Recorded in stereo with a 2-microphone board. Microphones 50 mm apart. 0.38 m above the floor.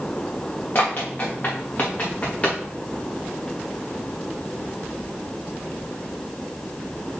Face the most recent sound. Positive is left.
turn(degrees=30)  # may be behind; listen again after turning